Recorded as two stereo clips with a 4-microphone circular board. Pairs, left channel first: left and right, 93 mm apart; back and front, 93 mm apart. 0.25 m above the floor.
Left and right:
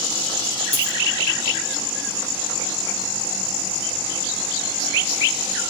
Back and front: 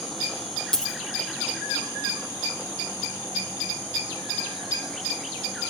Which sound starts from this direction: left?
A dropped coin, at 0.7 s.